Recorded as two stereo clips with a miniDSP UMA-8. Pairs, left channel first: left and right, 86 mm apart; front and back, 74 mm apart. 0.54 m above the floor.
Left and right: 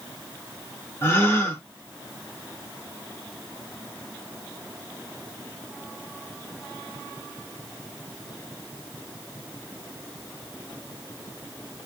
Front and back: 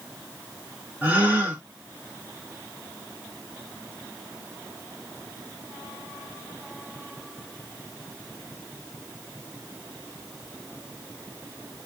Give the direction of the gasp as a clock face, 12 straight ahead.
8 o'clock.